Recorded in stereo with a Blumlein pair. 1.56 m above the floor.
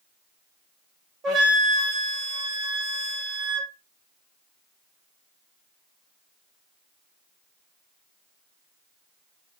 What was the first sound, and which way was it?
A flute, 30° right.